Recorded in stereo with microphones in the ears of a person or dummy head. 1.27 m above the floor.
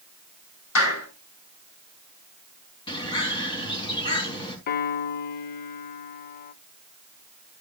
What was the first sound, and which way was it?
A clap, 85° left.